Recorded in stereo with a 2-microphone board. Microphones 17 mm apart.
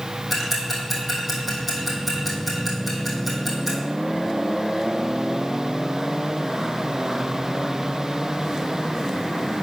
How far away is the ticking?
About 3 m.